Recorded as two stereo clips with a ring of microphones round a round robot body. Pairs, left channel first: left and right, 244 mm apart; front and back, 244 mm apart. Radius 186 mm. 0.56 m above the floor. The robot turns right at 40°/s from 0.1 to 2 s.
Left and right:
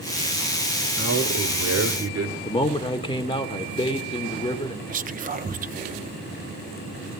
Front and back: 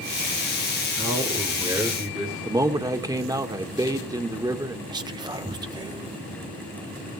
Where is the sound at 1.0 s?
130° right, 2.5 m; by 2.4 s 90° right, 2.5 m.